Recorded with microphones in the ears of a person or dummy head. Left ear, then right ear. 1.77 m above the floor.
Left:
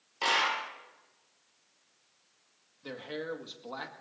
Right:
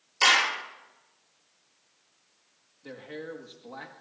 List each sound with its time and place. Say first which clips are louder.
0.2 s a clap: right 6 dB; 55° right (ahead or behind), 3 m
2.8 s a man speaking: left 2 dB; 25° left (ahead or behind), 1.9 m